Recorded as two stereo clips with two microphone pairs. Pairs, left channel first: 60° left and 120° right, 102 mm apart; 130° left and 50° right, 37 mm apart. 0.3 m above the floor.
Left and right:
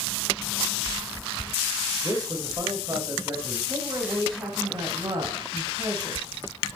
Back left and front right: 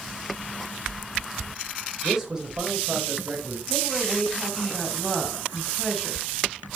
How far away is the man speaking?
About 1.0 m.